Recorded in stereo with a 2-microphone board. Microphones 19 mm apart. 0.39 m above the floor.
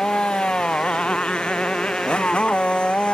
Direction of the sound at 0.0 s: 70° left (ahead or behind).